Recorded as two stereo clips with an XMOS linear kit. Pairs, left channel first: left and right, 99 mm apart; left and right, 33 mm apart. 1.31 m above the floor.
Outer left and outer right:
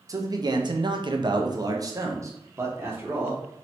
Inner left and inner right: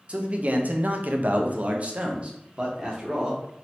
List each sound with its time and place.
0.1 s a man speaking: 35° right (ahead or behind), 0.7 m; by 3.4 s 20° right (ahead or behind), 1.5 m